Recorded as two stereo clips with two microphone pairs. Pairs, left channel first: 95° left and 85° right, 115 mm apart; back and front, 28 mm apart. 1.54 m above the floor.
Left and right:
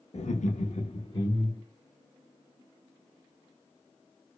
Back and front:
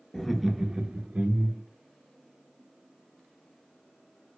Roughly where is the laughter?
Left.